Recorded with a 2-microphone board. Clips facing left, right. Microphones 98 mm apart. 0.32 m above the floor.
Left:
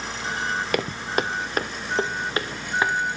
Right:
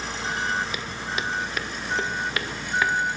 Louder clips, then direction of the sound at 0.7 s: Left 6 dB; 55° left (ahead or behind).